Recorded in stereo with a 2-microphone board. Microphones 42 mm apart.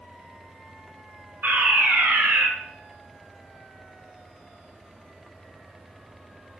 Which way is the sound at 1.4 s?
45° right (ahead or behind).